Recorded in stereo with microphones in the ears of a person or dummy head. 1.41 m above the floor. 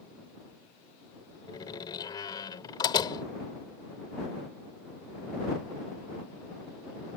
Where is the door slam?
20° left (ahead or behind).